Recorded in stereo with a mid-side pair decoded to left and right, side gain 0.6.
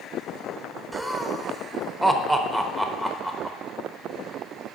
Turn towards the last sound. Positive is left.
turn(degrees=-10)